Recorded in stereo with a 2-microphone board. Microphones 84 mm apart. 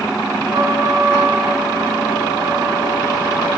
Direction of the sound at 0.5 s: 60° right (ahead or behind).